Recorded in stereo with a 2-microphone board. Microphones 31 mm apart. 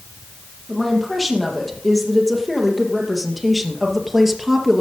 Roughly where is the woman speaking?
Centre.